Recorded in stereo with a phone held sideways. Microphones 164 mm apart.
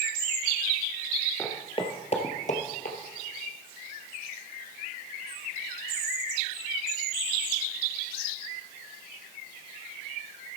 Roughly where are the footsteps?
Centre.